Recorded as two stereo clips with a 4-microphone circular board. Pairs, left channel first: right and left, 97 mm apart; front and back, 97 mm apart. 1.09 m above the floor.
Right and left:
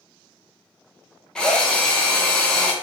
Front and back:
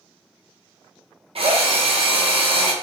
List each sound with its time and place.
1.4 s a drill: 170° right, 0.5 m